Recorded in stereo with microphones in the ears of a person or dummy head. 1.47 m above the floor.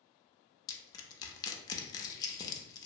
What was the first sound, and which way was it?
Crushing, 25° left (ahead or behind).